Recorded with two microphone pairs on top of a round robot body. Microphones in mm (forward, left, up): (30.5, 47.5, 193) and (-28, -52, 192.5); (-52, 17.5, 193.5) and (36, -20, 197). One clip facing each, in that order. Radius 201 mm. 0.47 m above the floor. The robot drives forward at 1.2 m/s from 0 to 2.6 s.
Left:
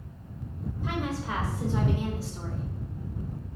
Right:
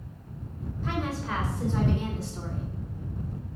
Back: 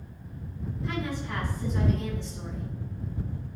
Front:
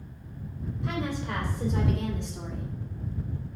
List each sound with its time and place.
0.8 s a woman speaking: 15° right, 4 m; by 2.7 s 35° right, 2 m